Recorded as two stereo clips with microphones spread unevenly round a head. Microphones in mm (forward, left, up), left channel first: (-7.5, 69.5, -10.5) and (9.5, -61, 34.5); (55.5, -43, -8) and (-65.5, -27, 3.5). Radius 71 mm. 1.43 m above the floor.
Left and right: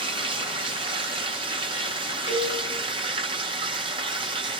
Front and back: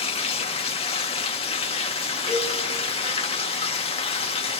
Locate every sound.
0.0 s running water: 45° right, 1.2 m
2.3 s a cowbell: 135° left, 9 m